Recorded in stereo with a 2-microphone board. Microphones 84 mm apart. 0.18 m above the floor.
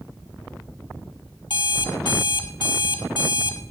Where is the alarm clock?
65° left (ahead or behind), 1.9 m.